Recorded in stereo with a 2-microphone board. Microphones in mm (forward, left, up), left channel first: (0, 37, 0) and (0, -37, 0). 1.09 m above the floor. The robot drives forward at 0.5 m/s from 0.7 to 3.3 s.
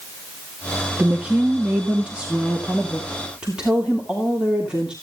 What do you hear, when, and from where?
1.0 s a woman speaking: 20° right (ahead or behind), 1.4 m; by 4.9 s 10° right (ahead or behind), 2.5 m